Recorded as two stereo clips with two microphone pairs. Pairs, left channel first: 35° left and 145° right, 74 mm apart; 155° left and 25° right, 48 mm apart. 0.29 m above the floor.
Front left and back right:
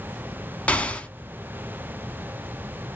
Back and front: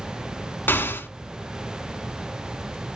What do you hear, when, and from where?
0.7 s an explosion: 110° left, 0.8 m